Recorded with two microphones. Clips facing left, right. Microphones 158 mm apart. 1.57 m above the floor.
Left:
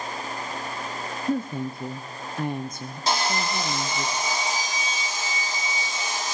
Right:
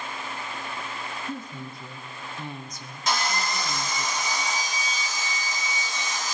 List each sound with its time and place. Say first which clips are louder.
1.3 s a woman speaking: left 9 dB; 55° left (ahead or behind), 0.6 m
3.1 s sawing: left 2 dB; 35° left (ahead or behind), 3.5 m